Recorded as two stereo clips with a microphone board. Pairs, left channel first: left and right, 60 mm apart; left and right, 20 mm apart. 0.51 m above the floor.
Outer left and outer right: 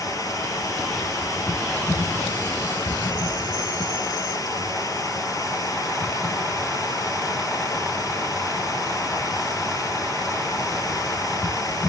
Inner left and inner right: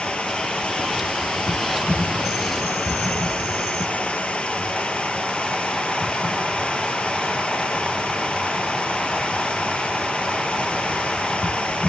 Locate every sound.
0.0 s running water: 80° left, 2.5 m